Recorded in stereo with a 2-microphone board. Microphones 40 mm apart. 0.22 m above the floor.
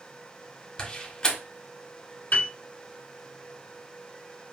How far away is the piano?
About 1.6 m.